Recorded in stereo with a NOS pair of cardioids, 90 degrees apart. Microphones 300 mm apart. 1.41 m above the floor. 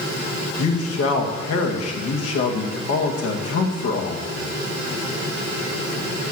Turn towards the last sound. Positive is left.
turn(degrees=55)